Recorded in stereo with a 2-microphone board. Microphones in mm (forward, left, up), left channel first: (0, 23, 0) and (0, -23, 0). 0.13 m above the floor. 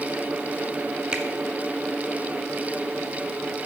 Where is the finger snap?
15° right (ahead or behind), 1.5 m.